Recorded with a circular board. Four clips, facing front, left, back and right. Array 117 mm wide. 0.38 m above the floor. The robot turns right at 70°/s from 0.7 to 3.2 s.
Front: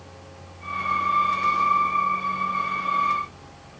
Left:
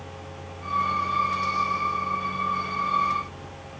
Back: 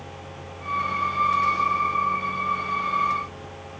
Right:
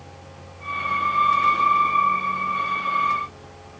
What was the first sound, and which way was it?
Only background noise.